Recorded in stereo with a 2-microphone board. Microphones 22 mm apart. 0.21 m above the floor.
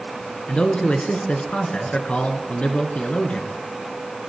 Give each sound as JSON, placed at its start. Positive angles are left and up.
{"t": 0.5, "sound": "a man speaking", "side_deg": 60, "distance_m": 2.5}